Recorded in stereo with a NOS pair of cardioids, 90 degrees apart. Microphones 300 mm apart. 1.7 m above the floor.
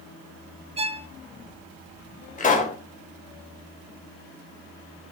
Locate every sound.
0.8 s a violin: 20° right, 1.1 m
2.4 s a pop: 30° left, 3.5 m